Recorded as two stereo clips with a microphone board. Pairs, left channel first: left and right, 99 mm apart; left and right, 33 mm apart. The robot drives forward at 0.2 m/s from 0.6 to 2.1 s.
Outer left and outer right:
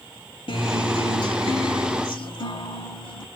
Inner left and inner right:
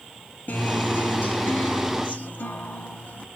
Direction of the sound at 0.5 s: 70° left (ahead or behind).